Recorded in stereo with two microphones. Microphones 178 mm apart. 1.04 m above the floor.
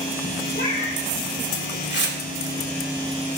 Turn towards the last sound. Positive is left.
turn(degrees=85)